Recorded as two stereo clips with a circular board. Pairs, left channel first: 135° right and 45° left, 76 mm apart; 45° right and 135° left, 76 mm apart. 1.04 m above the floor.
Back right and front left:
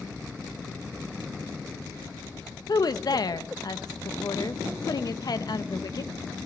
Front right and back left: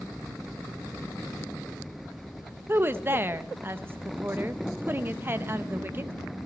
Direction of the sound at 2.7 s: 165° right.